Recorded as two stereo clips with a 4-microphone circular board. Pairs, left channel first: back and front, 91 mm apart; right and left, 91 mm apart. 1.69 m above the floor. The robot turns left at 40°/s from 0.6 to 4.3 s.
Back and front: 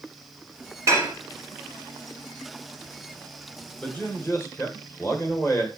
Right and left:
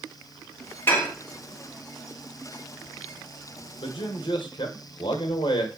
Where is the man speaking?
100° right, 1.6 m; by 5.7 s 120° right, 1.6 m.